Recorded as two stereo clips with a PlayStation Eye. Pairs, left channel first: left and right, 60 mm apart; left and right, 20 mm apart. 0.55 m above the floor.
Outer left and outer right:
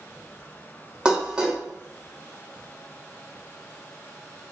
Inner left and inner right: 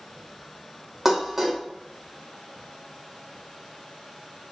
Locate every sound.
1.1 s dishes clattering: 15° right (ahead or behind), 1.0 m